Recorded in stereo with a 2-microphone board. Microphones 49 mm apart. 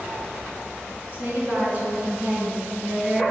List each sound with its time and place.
1.1 s a woman speaking: 40° right (ahead or behind), 1.8 m; by 3.2 s 30° right (ahead or behind), 3 m